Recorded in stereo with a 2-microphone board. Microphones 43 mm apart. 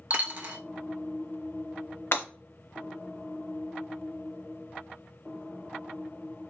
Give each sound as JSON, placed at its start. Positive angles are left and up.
{"t": 0.1, "sound": "a dropped coin", "side_deg": -40, "distance_m": 0.6}
{"t": 2.1, "sound": "breaking glass", "side_deg": 60, "distance_m": 0.7}